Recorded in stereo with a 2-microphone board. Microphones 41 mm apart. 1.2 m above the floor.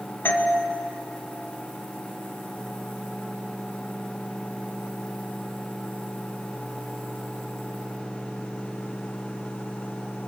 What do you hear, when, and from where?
0.2 s a doorbell: 60° left (ahead or behind), 2.0 m